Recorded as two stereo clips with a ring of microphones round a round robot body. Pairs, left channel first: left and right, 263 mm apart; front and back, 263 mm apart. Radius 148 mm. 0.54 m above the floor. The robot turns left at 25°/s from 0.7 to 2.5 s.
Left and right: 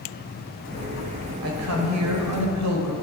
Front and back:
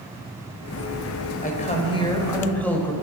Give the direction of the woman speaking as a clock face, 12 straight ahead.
2 o'clock.